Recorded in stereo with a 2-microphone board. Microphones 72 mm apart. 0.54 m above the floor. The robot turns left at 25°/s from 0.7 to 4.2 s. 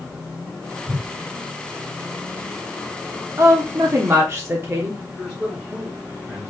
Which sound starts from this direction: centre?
A man speaking, at 5.2 s.